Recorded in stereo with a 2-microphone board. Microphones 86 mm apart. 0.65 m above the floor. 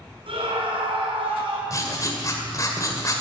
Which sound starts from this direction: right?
A scream, at 0.3 s.